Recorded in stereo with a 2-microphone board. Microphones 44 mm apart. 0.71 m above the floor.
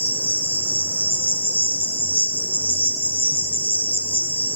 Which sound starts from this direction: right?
An insect, at 0.0 s.